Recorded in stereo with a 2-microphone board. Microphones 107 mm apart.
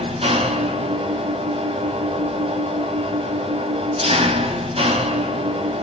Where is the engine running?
65° right (ahead or behind), 3 m.